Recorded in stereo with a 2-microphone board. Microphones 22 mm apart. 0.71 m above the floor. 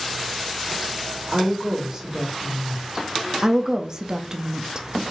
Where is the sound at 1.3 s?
25° right (ahead or behind), 1.8 m.